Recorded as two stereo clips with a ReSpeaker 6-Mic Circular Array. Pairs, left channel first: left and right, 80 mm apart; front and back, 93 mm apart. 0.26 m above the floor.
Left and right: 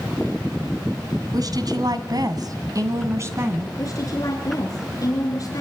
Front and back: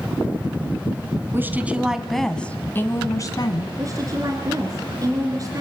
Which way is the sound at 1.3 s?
115° right.